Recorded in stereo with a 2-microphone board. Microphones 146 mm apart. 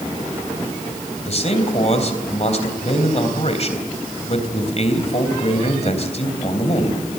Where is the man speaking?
45° left (ahead or behind), 3 m.